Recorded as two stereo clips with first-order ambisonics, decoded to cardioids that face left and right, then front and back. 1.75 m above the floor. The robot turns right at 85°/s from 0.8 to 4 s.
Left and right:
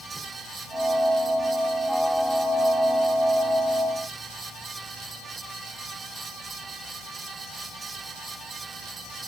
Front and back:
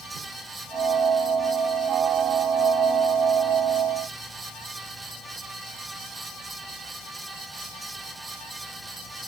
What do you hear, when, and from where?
Only background noise.